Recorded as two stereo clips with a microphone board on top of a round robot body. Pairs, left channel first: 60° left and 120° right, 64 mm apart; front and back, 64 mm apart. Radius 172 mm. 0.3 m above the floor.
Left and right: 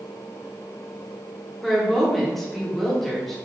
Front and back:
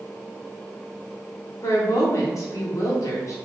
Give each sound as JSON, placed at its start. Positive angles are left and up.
{"t": 1.6, "sound": "a woman speaking", "azimuth_deg": -25, "distance_m": 1.5}